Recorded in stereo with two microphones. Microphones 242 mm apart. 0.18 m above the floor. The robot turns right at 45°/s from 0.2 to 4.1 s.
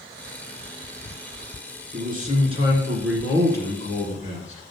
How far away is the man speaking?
About 2 m.